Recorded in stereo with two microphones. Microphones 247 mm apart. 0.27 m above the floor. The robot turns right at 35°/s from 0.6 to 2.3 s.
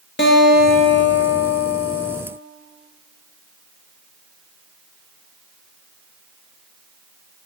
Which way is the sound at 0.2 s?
50° left.